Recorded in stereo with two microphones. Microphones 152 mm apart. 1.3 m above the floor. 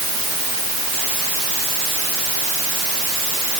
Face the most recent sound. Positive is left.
No sound to turn to.